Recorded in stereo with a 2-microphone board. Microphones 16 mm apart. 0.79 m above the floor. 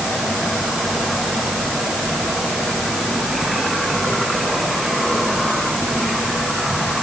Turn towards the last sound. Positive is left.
No sound to turn to.